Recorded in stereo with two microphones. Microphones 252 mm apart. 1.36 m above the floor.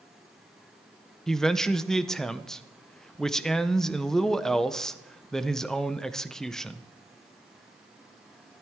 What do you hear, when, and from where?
1.3 s a man speaking: centre (ahead or behind), 0.5 m